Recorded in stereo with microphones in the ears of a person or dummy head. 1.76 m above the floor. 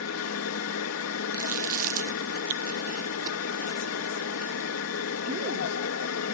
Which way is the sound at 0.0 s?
80° left.